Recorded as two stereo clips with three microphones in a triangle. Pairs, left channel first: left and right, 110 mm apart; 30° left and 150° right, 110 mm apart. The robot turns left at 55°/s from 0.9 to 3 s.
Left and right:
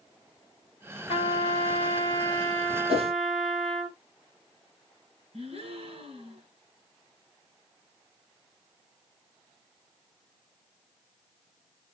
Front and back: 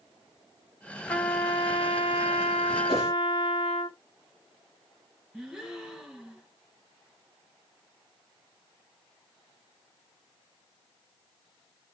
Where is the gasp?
60° right, 5.5 m.